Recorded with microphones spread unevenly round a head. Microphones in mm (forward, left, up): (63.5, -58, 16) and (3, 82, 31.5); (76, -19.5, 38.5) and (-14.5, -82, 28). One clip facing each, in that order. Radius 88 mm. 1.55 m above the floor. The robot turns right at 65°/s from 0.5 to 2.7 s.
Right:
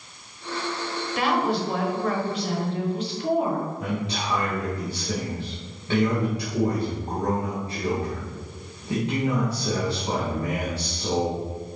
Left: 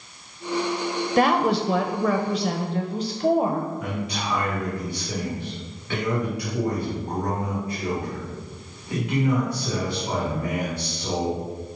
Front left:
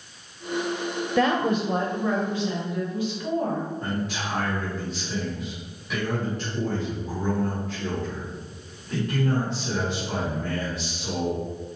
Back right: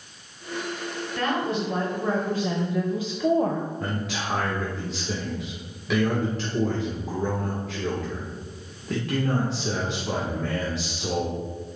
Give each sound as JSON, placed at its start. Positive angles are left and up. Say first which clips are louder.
{"t": 1.2, "sound": "a woman speaking", "louder": "left 4 dB, front left 4 dB", "azimuth_deg": 70, "distance_m": 0.9}
{"t": 3.8, "sound": "a man speaking", "louder": "right 1 dB, front left 1 dB", "azimuth_deg": -135, "distance_m": 1.9}